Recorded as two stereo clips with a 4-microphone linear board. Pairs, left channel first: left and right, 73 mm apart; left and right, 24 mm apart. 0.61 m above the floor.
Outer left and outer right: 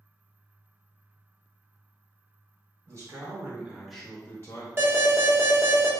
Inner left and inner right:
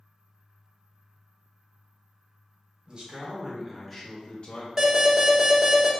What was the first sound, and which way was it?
A man speaking, 55° right (ahead or behind).